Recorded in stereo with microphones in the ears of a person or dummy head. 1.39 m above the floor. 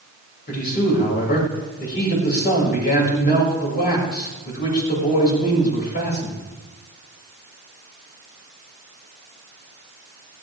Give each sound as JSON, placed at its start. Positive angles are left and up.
{"t": 0.5, "sound": "a man speaking", "side_deg": 55, "distance_m": 7.0}